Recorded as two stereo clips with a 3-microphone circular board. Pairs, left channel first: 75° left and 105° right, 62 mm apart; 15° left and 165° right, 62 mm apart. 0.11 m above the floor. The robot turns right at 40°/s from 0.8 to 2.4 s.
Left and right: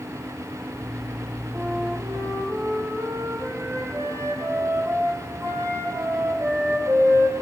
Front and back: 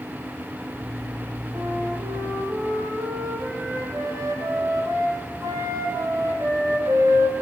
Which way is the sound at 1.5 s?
Straight behind.